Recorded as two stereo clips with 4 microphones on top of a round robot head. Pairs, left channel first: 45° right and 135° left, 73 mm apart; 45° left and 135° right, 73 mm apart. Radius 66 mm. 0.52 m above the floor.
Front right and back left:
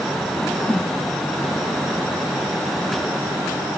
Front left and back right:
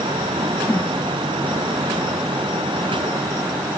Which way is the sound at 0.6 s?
10° left.